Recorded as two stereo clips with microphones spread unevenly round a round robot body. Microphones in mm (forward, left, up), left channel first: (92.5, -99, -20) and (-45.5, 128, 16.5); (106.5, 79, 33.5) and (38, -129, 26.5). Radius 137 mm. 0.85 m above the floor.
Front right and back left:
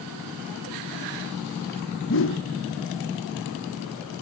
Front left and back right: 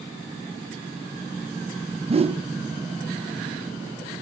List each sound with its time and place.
2.1 s a whoosh: 50° right, 0.5 m